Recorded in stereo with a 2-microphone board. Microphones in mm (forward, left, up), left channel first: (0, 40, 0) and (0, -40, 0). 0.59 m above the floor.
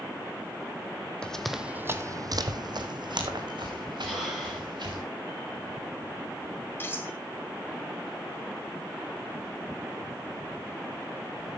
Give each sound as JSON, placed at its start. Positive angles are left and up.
{"t": 1.2, "sound": "running footsteps", "side_deg": 10, "distance_m": 1.1}
{"t": 4.0, "sound": "breathing", "side_deg": -5, "distance_m": 7.0}
{"t": 6.8, "sound": "cutlery clinking", "side_deg": 30, "distance_m": 1.9}